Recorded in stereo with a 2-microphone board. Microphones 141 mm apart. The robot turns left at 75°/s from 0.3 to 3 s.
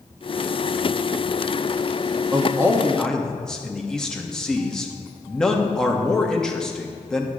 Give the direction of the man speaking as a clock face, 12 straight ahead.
5 o'clock.